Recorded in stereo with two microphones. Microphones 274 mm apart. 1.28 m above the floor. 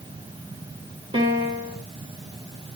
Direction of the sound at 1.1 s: 20° right (ahead or behind).